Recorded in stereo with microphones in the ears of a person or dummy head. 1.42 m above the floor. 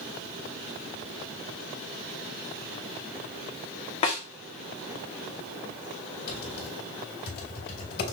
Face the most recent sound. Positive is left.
turn(degrees=50)  # may be behind; listen again after turning